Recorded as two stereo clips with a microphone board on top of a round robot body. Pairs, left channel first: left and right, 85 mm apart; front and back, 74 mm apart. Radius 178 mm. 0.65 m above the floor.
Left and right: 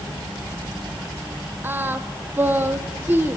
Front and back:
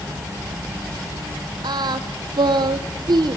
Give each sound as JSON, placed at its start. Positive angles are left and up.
{"t": 1.6, "sound": "singing", "azimuth_deg": -155, "distance_m": 0.8}